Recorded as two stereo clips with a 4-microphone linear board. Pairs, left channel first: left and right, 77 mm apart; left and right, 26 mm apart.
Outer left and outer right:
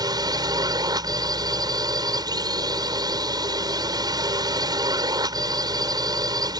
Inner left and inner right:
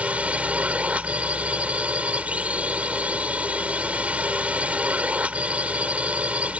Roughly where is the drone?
Right.